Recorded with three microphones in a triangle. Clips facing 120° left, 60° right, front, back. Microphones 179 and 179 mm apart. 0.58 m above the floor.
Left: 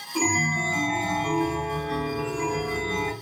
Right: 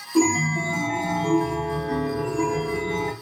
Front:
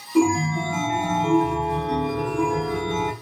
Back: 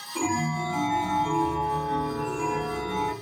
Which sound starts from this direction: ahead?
A chime, at 0.1 s.